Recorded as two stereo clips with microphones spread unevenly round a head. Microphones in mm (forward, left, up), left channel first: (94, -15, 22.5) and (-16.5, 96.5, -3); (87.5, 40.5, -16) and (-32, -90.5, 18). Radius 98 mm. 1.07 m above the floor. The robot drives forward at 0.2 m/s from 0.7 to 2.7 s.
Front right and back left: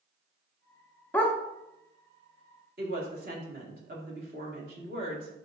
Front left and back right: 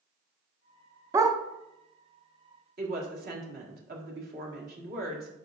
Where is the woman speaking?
Straight behind, 1.7 m.